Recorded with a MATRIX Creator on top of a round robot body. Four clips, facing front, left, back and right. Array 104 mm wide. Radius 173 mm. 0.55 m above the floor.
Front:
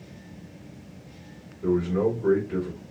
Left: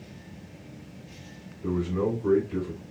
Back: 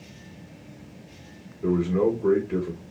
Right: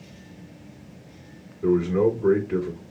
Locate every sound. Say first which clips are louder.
1.6 s a man speaking: right 7 dB, back 1 dB; 95° right, 2 m